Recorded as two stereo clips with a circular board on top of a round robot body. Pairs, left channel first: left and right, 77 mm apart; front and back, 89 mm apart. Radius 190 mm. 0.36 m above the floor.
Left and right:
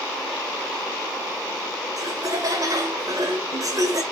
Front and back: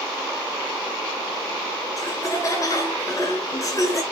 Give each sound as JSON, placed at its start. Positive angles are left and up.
{"t": 2.0, "sound": "laughter", "azimuth_deg": -50, "distance_m": 1.9}